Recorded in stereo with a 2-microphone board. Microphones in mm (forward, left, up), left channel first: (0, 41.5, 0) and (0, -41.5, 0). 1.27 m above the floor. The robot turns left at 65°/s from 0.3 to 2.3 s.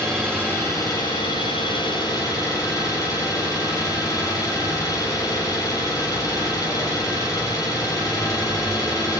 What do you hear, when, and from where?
0.0 s an engine running: 170° left, 8.5 m; by 9.2 s 40° left, 8.5 m